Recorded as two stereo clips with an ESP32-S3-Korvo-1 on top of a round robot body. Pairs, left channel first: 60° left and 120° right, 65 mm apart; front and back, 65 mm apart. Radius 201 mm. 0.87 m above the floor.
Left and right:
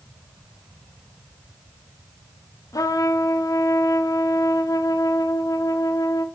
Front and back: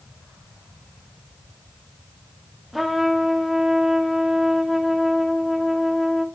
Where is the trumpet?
90° left, 1.2 m.